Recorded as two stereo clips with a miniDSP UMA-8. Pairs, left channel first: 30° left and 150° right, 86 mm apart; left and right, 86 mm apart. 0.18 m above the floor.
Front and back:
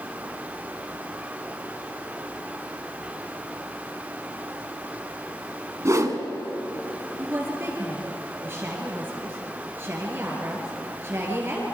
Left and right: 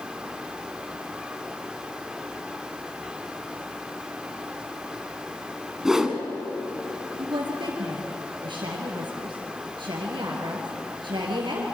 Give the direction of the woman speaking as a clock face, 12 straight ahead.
3 o'clock.